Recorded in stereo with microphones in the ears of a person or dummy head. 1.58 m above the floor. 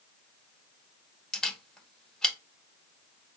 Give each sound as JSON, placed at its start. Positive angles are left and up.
{"t": 1.3, "sound": "a camera shutter", "side_deg": 5, "distance_m": 1.2}